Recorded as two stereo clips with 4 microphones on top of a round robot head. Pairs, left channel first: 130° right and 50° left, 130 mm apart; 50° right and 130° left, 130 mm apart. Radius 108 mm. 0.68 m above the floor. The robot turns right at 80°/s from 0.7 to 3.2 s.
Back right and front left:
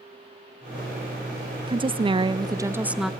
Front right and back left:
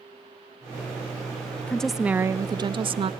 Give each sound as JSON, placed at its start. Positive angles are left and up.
{"t": 1.7, "sound": "a woman speaking", "azimuth_deg": 25, "distance_m": 0.5}